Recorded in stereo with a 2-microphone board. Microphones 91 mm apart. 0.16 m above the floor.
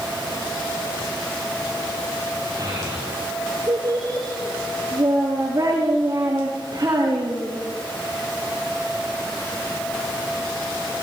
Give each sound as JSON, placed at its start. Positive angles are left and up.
{"t": 2.6, "sound": "a child speaking", "side_deg": -40, "distance_m": 9.0}